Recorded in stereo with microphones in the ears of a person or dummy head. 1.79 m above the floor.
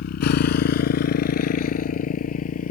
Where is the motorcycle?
55° left (ahead or behind); by 2.7 s 45° left (ahead or behind).